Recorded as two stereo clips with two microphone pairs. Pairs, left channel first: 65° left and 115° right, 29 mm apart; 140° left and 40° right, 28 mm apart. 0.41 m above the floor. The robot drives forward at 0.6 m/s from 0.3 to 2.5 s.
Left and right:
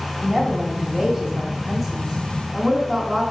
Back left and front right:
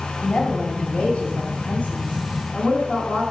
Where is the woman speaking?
145° left, 2 m; by 3.2 s 160° left, 3 m.